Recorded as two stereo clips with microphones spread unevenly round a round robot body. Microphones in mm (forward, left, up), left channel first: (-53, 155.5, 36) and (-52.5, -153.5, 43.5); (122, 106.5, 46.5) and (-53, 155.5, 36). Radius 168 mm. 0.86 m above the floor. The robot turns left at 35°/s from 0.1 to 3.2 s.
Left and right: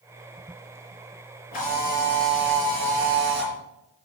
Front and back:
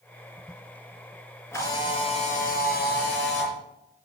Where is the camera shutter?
60° left, 4 m; by 3.5 s straight ahead, 4 m.